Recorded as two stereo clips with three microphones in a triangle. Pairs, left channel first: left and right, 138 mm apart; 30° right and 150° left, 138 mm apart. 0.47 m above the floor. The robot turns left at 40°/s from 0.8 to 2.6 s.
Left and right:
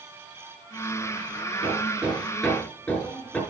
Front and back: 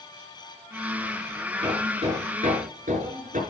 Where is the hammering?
150° right, 5.5 m; by 3.4 s 170° left, 5.5 m.